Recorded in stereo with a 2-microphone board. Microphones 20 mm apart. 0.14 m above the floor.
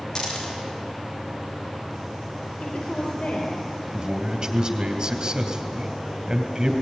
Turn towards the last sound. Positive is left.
turn(degrees=-50)  # may be behind; listen again after turning